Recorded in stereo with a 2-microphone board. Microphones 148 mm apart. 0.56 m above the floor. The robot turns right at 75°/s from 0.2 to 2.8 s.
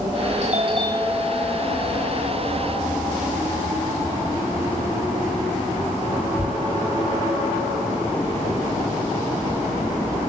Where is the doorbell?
60° right (ahead or behind), 4.5 m; by 6.5 s 60° left (ahead or behind), 4.5 m.